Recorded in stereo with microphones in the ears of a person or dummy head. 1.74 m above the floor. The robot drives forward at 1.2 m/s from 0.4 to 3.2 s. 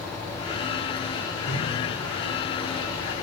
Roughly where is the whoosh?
Left.